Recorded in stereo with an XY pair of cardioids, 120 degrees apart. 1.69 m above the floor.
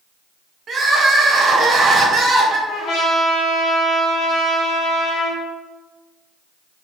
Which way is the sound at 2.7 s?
65° left.